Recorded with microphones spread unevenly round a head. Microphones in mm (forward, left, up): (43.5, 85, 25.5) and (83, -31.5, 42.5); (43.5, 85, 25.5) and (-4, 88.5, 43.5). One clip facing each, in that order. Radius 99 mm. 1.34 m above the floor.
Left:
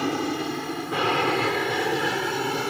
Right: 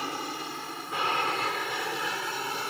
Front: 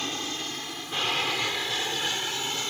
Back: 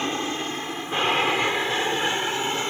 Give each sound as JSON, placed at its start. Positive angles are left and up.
{"t": 0.0, "sound": "an aircraft", "azimuth_deg": 115}